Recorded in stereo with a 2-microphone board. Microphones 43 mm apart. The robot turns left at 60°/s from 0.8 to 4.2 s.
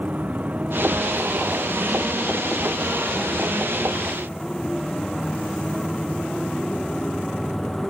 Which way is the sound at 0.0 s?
145° right.